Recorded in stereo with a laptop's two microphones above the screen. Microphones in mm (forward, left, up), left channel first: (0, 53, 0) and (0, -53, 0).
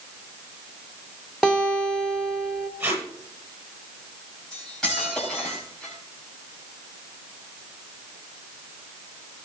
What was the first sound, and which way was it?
A guitar, centre (ahead or behind).